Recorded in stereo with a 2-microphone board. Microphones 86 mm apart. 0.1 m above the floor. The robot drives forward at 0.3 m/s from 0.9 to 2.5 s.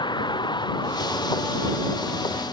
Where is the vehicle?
60° left (ahead or behind); by 2.5 s 55° left (ahead or behind).